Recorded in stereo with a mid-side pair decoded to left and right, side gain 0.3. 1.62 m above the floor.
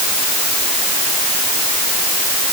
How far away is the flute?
No flute in this recording.